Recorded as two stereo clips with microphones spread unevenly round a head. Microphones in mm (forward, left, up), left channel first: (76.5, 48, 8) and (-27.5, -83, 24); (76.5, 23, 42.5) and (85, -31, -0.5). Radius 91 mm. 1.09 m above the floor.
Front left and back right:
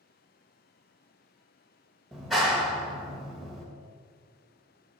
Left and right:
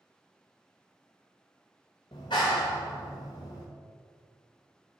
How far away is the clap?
About 0.8 m.